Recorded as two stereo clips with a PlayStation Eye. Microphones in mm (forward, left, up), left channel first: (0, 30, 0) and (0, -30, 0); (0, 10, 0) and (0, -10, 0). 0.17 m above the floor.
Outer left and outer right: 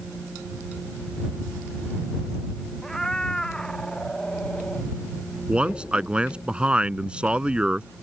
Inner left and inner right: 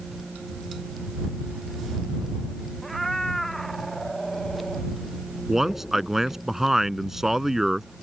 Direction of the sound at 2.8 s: 10° left (ahead or behind).